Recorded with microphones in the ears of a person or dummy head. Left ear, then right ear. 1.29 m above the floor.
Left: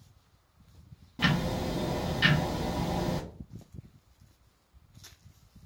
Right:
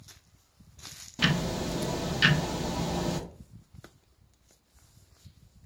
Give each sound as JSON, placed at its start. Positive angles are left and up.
{"t": 1.2, "sound": "ticking", "side_deg": -20, "distance_m": 0.5}